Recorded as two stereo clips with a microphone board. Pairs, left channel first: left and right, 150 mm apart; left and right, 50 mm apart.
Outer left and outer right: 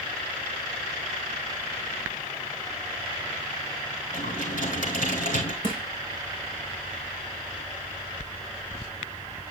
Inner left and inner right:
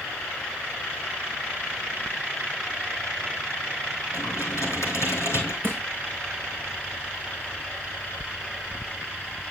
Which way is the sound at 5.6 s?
40° right (ahead or behind).